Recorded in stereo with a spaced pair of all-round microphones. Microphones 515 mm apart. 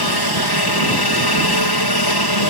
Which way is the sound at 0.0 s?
45° left (ahead or behind).